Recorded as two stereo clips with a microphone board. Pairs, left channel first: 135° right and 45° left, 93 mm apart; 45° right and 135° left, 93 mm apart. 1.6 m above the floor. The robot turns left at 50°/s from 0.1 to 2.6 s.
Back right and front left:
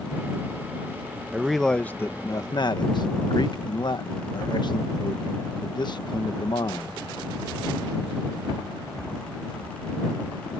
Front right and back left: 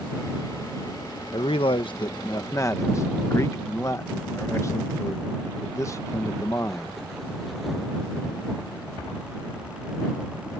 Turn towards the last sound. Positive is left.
turn(degrees=-100)